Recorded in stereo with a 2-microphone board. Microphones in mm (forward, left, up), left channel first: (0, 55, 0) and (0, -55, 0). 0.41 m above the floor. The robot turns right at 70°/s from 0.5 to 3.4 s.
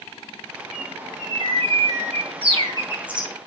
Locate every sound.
0.7 s a bird: straight behind, 4.5 m; by 3.3 s straight ahead, 4.5 m